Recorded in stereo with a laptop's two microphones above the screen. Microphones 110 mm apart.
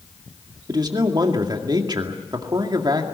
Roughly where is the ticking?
No ticking in this recording.